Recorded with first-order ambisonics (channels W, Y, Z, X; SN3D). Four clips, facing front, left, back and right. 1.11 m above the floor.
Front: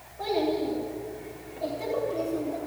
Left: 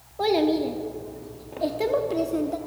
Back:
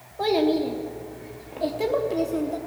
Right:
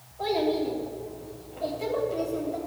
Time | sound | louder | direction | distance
0.2 | a child speaking | left 4 dB, back 5 dB | 125° left | 0.9 m